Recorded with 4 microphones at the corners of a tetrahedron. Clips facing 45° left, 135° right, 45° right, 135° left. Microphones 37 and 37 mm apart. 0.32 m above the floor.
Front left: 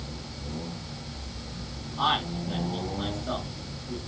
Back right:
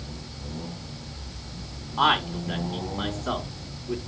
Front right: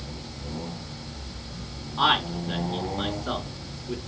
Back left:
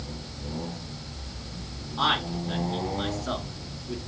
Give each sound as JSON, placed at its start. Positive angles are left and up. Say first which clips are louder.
{"t": 2.0, "sound": "a man speaking", "louder": "back right 4 dB, front right 3 dB", "azimuth_deg": -120, "distance_m": 2.5}